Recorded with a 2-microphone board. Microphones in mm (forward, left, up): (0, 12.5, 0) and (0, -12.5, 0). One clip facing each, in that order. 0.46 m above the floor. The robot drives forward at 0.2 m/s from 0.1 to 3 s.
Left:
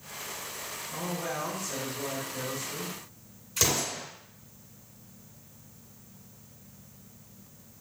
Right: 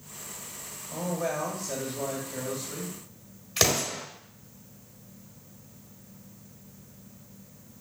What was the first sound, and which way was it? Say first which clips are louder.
A man speaking: right 4 dB; 50° right (ahead or behind).